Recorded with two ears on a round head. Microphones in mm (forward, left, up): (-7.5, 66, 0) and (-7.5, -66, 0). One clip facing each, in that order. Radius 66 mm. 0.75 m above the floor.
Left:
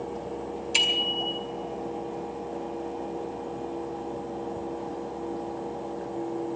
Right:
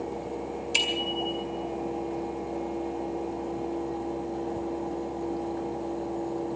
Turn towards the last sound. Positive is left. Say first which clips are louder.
# right 1 dB
turn(degrees=0)  # may be behind; listen again after turning